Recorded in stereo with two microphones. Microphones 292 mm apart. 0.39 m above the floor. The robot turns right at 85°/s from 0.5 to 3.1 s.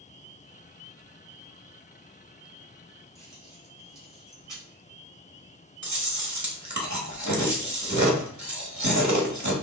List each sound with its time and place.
3.1 s keys jangling: 70° right (ahead or behind), 2.5 m
5.8 s chewing: 65° right (ahead or behind), 1.1 m